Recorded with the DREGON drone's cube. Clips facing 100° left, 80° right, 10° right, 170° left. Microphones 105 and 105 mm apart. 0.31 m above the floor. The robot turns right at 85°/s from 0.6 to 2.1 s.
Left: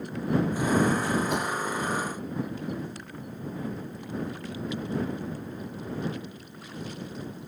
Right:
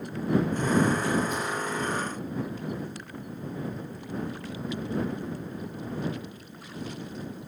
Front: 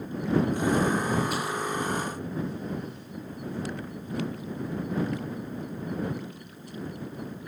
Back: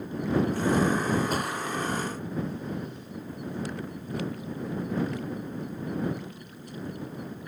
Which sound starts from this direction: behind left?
A thud, at 1.3 s.